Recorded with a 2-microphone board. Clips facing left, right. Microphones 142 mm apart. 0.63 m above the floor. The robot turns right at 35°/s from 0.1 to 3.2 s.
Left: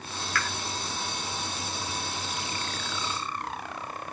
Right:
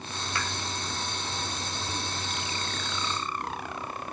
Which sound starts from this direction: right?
A pop, at 0.3 s.